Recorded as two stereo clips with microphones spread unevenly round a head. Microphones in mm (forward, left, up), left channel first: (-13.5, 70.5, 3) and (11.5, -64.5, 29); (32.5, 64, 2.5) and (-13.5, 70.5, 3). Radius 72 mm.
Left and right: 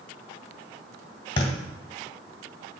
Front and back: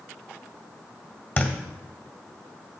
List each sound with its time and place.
1.4 s a thud: 40° left, 1.9 m